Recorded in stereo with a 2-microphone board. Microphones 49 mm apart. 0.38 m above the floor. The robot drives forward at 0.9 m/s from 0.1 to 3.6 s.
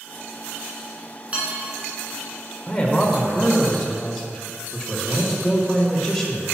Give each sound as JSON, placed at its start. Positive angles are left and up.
{"t": 1.3, "sound": "dishes clattering", "side_deg": -30, "distance_m": 3.0}
{"t": 2.7, "sound": "a man speaking", "side_deg": 15, "distance_m": 1.3}